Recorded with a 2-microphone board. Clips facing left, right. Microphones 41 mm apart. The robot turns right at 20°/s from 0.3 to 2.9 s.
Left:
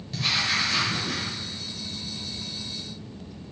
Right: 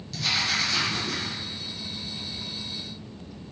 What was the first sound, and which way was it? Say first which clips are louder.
Writing: left 1 dB; 25° left (ahead or behind).